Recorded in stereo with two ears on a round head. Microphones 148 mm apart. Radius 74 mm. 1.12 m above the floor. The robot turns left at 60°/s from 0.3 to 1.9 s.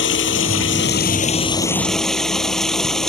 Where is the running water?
100° left; by 3.1 s 5° left.